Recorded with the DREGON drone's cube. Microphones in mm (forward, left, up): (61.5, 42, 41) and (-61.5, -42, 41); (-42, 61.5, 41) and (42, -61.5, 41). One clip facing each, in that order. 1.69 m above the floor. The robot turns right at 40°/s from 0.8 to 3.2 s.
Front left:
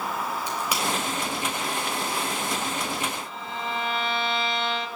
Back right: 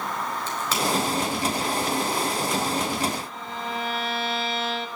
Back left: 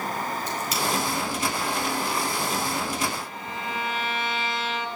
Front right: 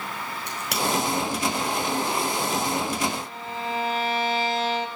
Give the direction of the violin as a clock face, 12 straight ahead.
2 o'clock.